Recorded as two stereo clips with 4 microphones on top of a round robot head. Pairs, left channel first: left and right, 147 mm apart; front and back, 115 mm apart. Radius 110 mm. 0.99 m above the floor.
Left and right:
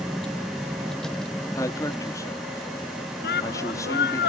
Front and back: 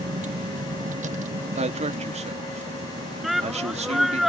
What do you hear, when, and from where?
0.0 s a vehicle: 175° left; by 4.3 s straight behind
1.6 s a man speaking: 160° left
3.2 s a shout: 95° left